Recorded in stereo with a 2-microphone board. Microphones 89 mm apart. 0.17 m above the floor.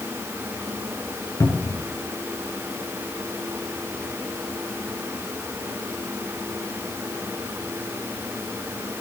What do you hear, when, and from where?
1.4 s a cupboard door: 40° left (ahead or behind), 1.7 m